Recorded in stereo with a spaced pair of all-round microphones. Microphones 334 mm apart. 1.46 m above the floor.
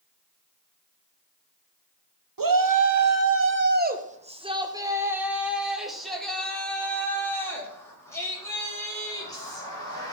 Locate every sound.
2.4 s a shout: 75° right (ahead or behind), 0.7 m; by 10.1 s 10° left (ahead or behind), 4 m